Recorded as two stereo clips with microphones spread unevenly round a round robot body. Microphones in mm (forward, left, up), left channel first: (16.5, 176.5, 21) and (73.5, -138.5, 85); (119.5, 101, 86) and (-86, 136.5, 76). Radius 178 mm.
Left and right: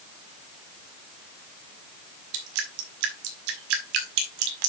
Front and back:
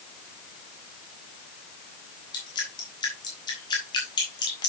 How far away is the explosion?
I don't hear an explosion.